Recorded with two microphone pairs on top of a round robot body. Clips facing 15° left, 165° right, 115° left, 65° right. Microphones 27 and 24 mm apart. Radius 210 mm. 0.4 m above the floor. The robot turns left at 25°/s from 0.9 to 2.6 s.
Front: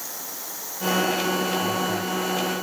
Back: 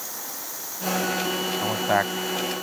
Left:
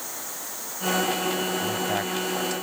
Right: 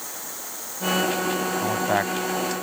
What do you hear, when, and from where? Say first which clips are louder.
1.6 s a man speaking: back 2 dB, right 3 dB; 125° right; by 2.5 s 145° right